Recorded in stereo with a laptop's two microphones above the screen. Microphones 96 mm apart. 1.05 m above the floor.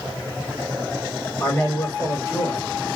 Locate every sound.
1.4 s a man speaking: 35° left (ahead or behind), 1.1 m